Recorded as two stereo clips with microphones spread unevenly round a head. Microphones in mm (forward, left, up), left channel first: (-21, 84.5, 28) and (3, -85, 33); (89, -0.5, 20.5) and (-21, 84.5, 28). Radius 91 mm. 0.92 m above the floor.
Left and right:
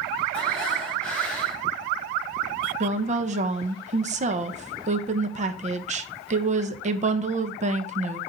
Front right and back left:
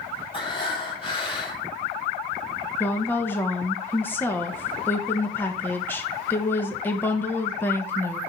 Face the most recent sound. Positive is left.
turn(degrees=-100)